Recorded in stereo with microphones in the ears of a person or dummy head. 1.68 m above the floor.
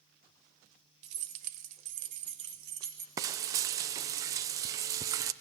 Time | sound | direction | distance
1.0 | keys jangling | 40° right (ahead or behind) | 0.9 m
3.2 | frying | 25° right (ahead or behind) | 0.6 m